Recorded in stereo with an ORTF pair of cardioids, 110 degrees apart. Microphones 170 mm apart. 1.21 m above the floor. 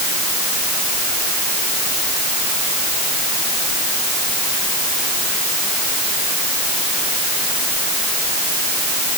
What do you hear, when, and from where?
Only background noise.